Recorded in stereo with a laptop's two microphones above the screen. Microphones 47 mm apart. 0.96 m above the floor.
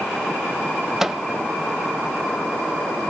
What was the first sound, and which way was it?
A microwave, 5° right (ahead or behind).